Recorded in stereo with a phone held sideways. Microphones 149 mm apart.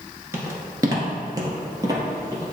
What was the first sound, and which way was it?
Footsteps, 20° right (ahead or behind).